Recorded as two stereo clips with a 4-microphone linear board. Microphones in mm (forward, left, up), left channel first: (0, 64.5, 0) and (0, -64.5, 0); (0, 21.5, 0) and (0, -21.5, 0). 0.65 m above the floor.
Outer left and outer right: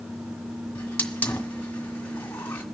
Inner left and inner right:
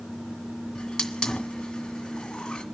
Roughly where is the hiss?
Centre.